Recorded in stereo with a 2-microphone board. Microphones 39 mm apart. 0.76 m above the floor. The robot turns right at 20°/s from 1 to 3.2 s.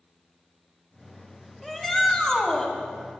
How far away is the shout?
About 2.0 m.